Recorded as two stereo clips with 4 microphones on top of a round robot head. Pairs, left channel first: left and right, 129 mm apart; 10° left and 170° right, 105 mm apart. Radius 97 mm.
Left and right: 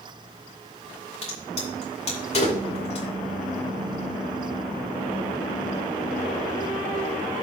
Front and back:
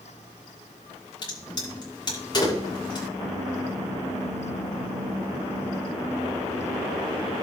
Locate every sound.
1.2 s a crack: 55° left, 6.5 m